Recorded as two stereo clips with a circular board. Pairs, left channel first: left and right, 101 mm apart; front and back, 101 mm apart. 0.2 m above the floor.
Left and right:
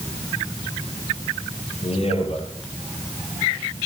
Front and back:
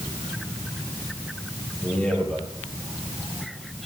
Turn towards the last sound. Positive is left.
turn(degrees=80)